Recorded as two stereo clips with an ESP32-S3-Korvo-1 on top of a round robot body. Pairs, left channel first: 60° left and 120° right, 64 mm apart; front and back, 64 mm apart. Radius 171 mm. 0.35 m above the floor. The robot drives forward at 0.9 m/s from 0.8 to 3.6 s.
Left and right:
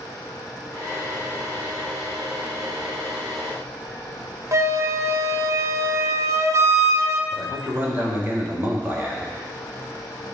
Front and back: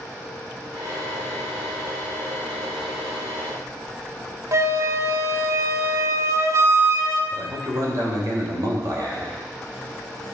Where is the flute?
150° right, 1.0 m.